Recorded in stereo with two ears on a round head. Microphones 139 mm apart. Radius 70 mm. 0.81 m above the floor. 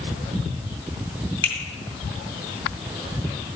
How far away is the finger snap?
About 2 m.